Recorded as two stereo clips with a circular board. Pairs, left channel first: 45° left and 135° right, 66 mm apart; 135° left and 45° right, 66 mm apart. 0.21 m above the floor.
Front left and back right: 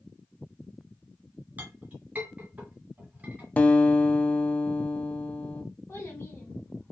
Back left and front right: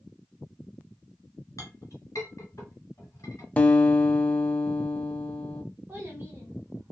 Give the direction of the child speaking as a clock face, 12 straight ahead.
12 o'clock.